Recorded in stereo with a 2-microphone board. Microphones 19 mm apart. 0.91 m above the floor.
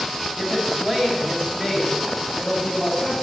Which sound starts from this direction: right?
A woman speaking, at 0.4 s.